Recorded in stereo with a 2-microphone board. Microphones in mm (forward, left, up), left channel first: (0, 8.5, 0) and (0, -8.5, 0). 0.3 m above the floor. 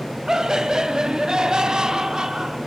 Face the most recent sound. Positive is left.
turn(degrees=-55)  # may be behind; listen again after turning